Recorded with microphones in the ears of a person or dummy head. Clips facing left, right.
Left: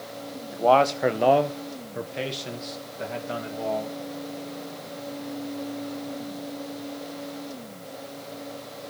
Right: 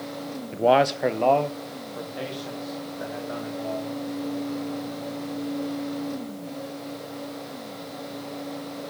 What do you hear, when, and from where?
0.5 s a man speaking: 35° right (ahead or behind), 0.7 m; by 4.0 s 40° left (ahead or behind), 3.5 m